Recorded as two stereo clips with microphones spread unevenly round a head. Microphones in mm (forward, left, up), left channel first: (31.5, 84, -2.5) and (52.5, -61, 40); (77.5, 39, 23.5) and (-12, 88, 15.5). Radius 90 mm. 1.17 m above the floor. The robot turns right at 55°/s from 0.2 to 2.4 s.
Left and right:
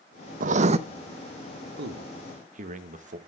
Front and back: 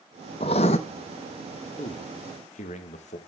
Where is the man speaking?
80° right, 1.1 m; by 3.2 s 45° right, 1.1 m.